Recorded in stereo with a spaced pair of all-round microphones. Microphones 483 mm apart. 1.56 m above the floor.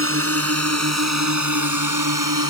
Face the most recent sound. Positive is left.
turn(degrees=-40)  # may be behind; listen again after turning